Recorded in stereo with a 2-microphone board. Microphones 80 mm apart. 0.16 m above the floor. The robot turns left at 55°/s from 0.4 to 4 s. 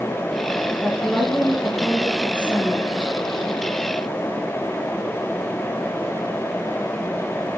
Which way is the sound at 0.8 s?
135° right.